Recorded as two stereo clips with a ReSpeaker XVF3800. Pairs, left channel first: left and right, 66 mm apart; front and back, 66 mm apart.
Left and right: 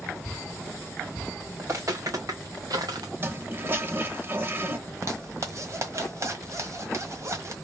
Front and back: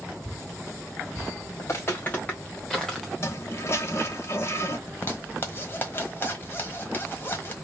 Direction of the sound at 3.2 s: 40° right.